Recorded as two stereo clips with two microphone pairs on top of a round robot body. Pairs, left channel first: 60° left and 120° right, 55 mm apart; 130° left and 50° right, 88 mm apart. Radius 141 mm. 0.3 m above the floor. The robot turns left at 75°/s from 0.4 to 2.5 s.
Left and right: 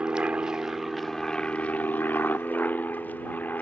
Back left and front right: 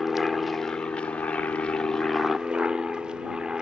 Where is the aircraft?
160° right; by 3.6 s 40° left.